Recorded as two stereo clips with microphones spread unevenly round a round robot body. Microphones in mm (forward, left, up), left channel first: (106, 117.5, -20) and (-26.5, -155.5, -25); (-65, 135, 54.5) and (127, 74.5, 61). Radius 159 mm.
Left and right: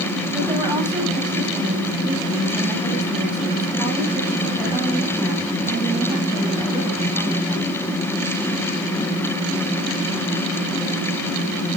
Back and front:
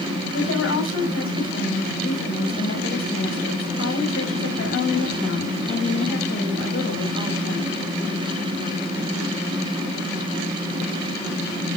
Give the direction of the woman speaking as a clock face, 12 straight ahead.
7 o'clock.